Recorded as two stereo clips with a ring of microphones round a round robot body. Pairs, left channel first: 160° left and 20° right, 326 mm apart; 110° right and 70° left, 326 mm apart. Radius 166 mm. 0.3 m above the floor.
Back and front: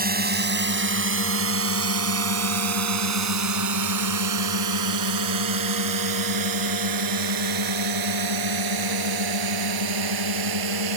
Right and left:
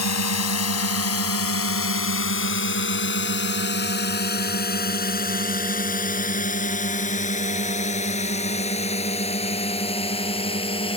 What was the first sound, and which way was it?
A drone, 80° right.